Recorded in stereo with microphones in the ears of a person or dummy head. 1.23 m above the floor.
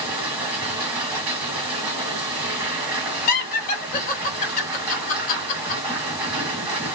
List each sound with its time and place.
0.0 s a machine running: 10° right (ahead or behind), 1.8 m
3.3 s laughter: 45° left (ahead or behind), 1.5 m